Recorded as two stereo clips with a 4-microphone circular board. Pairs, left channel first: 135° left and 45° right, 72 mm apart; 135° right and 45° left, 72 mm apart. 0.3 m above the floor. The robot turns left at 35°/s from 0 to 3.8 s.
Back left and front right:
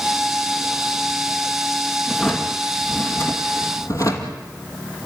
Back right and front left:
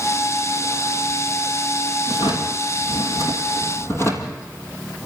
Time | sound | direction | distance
2.1 | a drawer | 125° right | 2.5 m